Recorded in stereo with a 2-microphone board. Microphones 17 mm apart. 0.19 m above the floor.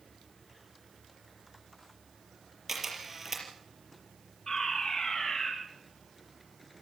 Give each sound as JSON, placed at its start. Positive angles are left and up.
{"t": 2.7, "sound": "a camera shutter", "side_deg": -15, "distance_m": 5.0}
{"t": 4.5, "sound": "a fire alarm", "side_deg": 30, "distance_m": 10.0}